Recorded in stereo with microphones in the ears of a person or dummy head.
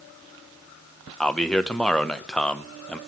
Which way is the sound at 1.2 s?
5° left (ahead or behind).